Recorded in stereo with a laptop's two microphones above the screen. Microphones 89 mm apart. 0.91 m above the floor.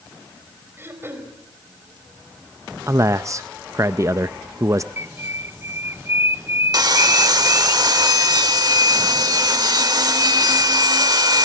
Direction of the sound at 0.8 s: 25° right (ahead or behind).